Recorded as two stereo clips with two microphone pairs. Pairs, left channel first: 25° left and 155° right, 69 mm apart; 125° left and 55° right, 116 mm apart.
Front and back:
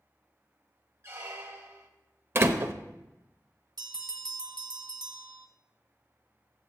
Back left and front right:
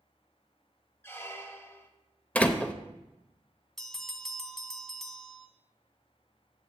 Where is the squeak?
175° right, 1.0 m.